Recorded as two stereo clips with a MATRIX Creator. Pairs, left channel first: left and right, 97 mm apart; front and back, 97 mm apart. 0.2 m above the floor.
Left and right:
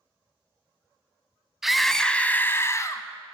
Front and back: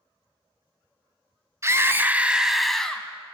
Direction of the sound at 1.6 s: 175° right.